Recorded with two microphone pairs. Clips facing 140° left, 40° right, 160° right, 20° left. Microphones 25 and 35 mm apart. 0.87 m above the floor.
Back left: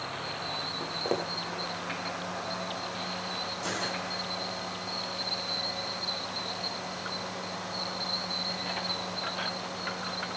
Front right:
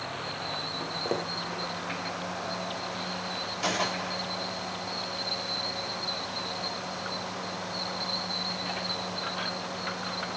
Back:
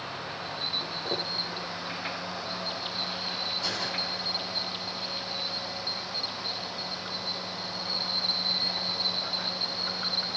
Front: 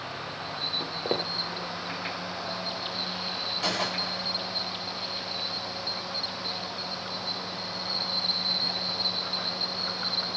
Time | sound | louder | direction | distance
0.8 | footsteps | back left 1 dB, front 2 dB | 65° left | 1.5 m
3.6 | a gunshot | front right 7 dB, front 2 dB | 10° right | 6.5 m